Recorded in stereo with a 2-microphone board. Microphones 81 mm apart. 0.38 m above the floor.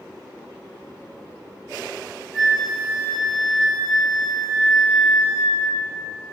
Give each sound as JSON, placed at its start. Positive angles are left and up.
{"t": 2.3, "sound": "a flute", "side_deg": 0, "distance_m": 1.9}